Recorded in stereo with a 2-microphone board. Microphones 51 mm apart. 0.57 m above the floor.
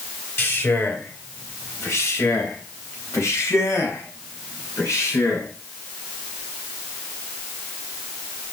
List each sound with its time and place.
0.4 s a man speaking: 50° left (ahead or behind), 3.5 m; by 5.5 s 70° left (ahead or behind), 4.5 m